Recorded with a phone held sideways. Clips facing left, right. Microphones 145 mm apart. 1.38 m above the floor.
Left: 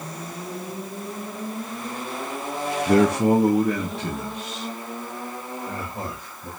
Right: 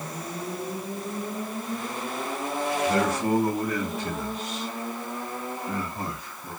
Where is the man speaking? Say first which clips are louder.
Left 8 dB; 60° left (ahead or behind), 0.6 m; by 6.5 s 70° left (ahead or behind), 3 m.